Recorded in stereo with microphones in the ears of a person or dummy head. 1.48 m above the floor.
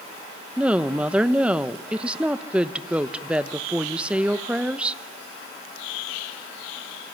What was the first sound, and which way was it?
A woman speaking, 5° right (ahead or behind).